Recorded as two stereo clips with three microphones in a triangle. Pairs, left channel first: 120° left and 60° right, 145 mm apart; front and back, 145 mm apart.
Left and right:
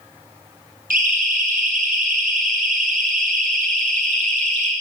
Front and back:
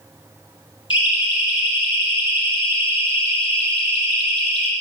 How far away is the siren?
About 6.5 m.